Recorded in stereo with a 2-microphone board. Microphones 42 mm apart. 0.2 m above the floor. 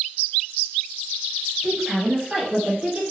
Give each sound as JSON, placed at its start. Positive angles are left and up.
{"t": 1.6, "sound": "a woman speaking", "side_deg": -5, "distance_m": 1.0}